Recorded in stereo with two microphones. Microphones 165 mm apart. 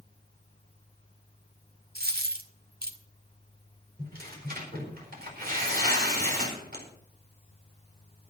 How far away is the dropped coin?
About 1.4 m.